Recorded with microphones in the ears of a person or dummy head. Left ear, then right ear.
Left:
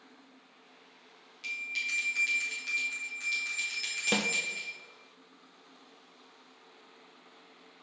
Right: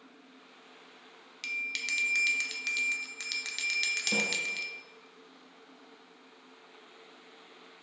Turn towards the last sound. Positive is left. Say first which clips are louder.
# left 1 dB
turn(degrees=35)  # may be behind; listen again after turning